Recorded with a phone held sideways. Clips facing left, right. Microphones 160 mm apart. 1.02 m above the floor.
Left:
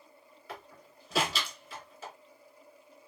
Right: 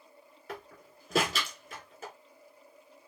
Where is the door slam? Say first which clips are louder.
Right 3 dB; 45° right (ahead or behind), 2.5 m.